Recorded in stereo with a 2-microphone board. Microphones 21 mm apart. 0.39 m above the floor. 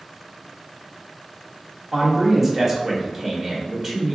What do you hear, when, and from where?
1.9 s a man speaking: 5° right (ahead or behind), 1.0 m